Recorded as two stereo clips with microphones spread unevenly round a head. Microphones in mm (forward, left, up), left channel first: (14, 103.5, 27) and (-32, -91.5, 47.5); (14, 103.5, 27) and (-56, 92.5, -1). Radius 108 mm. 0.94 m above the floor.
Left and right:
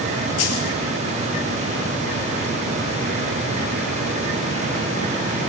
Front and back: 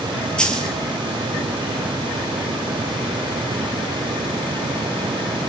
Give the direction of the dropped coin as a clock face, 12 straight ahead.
9 o'clock.